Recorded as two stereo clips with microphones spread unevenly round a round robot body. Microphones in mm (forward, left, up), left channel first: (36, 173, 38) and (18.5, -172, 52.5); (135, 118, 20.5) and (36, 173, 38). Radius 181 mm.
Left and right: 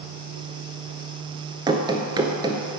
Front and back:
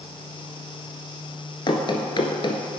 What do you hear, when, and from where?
1.7 s running footsteps: 30° right, 0.8 m